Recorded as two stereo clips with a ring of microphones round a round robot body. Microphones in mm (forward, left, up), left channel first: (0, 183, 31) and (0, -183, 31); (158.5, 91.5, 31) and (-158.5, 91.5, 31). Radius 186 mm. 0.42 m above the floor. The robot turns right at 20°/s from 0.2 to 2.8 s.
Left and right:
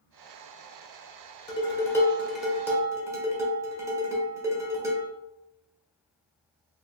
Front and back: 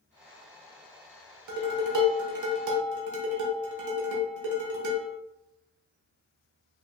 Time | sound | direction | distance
1.5 | dishes clattering | 165° left | 0.9 m